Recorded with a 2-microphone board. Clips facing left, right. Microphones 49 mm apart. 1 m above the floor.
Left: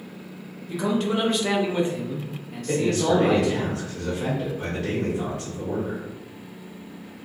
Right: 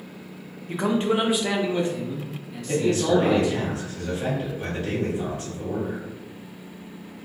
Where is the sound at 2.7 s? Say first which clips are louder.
Even; 70° left (ahead or behind), 1.5 m.